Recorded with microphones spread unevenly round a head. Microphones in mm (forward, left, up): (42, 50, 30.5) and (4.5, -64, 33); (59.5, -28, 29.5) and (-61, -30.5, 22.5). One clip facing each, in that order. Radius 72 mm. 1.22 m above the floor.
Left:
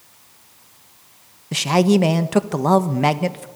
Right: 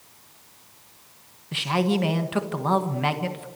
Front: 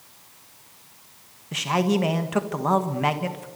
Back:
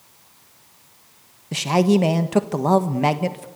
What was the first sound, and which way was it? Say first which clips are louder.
A man speaking: left 8 dB, back 5 dB; 120° left.